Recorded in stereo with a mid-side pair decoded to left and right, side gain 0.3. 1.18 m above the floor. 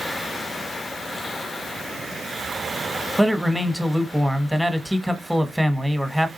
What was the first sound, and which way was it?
A man speaking, straight ahead.